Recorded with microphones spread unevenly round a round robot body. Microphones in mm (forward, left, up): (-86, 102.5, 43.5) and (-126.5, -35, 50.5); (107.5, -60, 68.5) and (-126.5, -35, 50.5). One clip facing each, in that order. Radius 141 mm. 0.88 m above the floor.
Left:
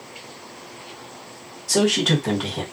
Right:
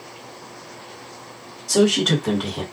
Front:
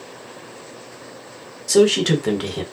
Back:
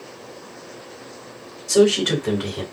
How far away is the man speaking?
About 1.3 m.